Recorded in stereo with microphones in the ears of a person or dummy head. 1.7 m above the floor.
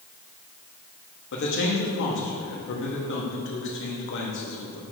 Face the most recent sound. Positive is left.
turn(degrees=65)  # may be behind; listen again after turning